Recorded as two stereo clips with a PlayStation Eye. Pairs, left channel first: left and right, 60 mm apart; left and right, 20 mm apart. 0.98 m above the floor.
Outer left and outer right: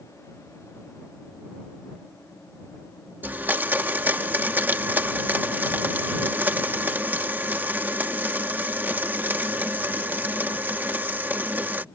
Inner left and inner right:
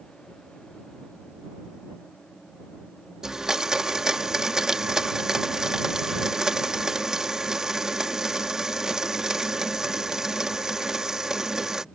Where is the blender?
35° right (ahead or behind).